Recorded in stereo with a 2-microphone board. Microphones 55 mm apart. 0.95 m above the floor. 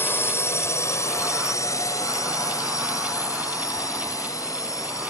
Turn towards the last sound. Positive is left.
turn(degrees=75)  # may be behind; listen again after turning